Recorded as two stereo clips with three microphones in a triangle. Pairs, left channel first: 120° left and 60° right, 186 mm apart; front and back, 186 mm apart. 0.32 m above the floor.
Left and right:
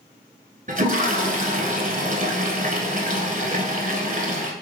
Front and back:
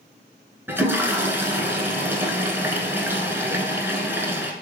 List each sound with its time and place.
0.7 s a toilet flushing: 100° right, 0.8 m